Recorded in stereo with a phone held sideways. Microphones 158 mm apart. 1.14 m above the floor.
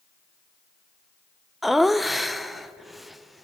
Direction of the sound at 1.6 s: Centre (ahead or behind).